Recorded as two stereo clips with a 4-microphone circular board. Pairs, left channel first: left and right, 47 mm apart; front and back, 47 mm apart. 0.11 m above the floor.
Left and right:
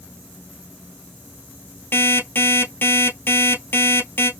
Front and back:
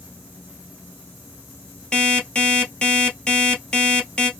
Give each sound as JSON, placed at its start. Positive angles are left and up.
{"t": 1.9, "sound": "an alarm clock", "azimuth_deg": 70, "distance_m": 1.7}